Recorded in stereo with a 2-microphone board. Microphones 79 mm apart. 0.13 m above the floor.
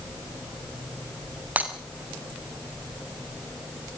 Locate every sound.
1.6 s breaking glass: 20° right (ahead or behind), 6 m